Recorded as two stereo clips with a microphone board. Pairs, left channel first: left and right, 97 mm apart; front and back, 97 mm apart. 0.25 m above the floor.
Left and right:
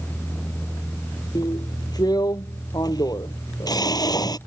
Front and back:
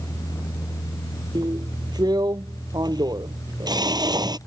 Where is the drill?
135° left.